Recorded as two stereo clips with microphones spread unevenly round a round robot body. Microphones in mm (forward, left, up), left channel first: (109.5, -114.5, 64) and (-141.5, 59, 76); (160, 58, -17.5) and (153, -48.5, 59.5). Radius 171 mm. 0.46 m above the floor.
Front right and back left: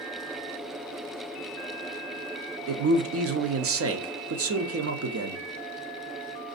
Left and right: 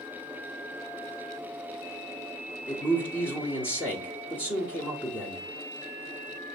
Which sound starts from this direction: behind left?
A man speaking, at 2.7 s.